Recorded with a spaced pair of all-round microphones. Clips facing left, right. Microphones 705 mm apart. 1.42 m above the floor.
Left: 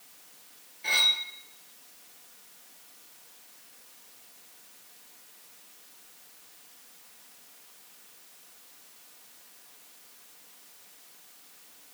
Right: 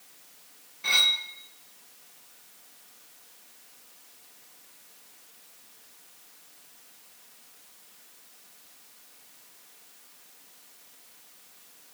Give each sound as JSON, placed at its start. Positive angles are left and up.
{"t": 0.8, "sound": "cutlery clinking", "side_deg": -40, "distance_m": 0.7}